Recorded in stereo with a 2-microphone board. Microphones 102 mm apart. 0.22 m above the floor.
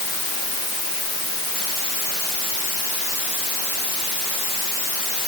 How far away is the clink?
I don't hear a clink.